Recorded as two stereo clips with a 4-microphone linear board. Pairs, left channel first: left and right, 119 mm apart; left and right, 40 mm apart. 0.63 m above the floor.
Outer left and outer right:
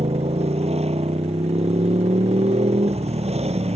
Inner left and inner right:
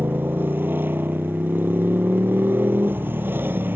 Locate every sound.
0.0 s a motorcycle: 65° right (ahead or behind)